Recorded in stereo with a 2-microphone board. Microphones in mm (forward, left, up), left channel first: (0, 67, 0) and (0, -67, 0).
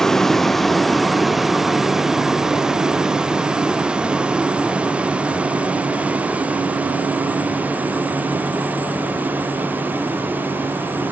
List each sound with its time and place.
0.0 s a vehicle: centre (ahead or behind); by 11.1 s 15° right (ahead or behind)